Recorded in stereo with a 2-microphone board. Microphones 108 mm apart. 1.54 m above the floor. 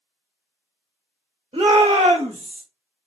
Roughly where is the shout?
Right.